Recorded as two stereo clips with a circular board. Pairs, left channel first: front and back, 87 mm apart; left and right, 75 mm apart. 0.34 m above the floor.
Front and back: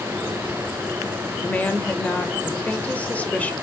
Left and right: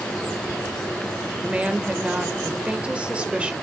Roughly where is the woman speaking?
Ahead right.